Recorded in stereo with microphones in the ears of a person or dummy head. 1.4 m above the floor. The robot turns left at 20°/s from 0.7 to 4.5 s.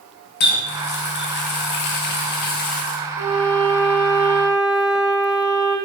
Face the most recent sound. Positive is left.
turn(degrees=0)  # may be behind; listen again after turning